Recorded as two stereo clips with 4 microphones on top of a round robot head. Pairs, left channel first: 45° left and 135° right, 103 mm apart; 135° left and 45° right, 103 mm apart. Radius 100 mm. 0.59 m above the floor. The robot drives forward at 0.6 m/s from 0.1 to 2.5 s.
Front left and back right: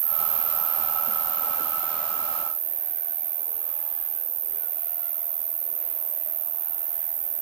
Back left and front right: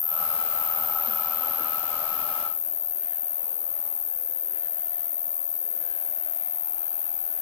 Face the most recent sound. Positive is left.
turn(degrees=-170)